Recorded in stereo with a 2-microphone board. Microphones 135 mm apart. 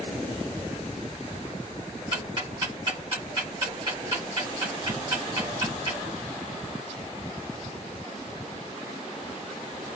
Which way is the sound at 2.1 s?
45° right (ahead or behind).